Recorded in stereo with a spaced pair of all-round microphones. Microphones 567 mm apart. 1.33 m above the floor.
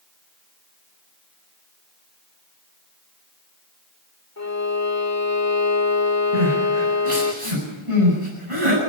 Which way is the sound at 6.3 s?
75° right (ahead or behind).